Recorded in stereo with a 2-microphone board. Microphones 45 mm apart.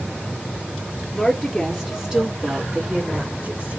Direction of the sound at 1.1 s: 5° left (ahead or behind).